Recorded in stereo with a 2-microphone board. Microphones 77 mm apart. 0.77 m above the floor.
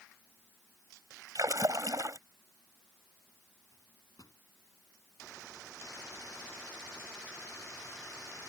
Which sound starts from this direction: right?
A splash, at 1.4 s.